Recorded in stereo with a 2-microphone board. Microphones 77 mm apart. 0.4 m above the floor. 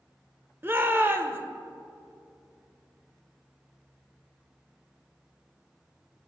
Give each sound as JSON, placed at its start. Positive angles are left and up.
{"t": 0.6, "sound": "a shout", "side_deg": -30, "distance_m": 0.9}